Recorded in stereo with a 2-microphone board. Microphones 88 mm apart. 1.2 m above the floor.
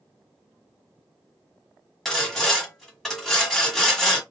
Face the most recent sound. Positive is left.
turn(degrees=5)  # may be behind; listen again after turning